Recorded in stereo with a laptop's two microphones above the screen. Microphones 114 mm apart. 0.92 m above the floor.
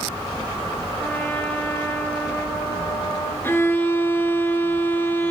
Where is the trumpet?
25° left (ahead or behind), 2 m.